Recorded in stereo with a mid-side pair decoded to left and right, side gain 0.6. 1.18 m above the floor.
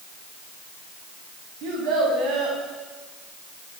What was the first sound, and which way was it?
A child speaking, 70° right.